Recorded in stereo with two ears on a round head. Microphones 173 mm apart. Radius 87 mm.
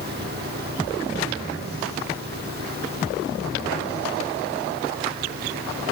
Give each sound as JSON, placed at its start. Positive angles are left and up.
{"t": 0.0, "sound": "an engine running", "side_deg": -55}